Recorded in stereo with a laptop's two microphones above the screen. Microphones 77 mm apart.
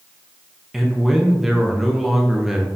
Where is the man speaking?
5° right (ahead or behind), 0.7 m.